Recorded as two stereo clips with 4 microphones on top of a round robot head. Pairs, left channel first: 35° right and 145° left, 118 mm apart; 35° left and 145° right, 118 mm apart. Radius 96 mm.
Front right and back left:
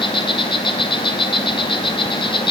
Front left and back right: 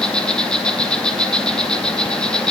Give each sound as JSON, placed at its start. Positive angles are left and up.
{"t": 0.0, "sound": "an insect", "azimuth_deg": -45, "distance_m": 2.5}